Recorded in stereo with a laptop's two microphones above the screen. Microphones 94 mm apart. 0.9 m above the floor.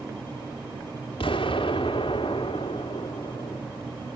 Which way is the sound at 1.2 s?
70° left (ahead or behind).